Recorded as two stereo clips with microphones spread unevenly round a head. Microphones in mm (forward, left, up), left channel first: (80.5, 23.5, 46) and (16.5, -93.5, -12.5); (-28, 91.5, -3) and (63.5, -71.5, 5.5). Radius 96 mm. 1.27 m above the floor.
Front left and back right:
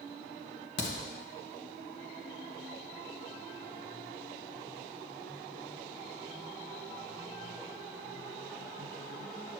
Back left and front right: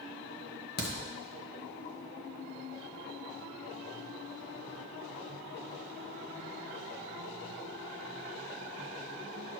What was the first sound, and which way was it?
A crack, 85° left.